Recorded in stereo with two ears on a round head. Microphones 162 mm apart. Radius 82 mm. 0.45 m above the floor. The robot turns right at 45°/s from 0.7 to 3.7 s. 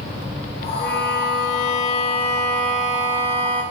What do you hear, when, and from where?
0.8 s a violin: 85° left, 6.5 m; by 3.6 s 145° right, 6.5 m